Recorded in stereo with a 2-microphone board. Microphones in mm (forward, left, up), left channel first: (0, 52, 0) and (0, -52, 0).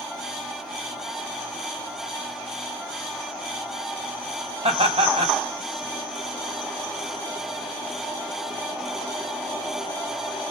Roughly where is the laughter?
Right.